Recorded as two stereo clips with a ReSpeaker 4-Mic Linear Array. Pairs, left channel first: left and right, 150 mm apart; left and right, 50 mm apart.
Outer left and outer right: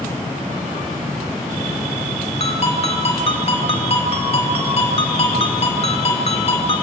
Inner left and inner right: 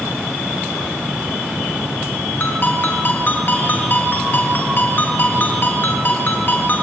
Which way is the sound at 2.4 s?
40° left (ahead or behind).